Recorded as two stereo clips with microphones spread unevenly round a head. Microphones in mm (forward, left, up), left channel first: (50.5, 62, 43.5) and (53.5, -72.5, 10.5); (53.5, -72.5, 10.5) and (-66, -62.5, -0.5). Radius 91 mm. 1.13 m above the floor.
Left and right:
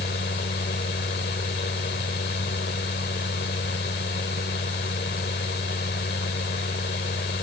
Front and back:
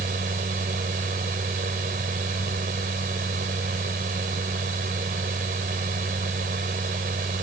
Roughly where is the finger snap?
No finger snap in this recording.